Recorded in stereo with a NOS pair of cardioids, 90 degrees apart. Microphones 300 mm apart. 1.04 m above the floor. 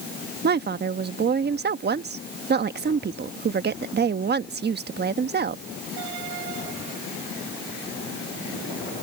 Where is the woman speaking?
30° right.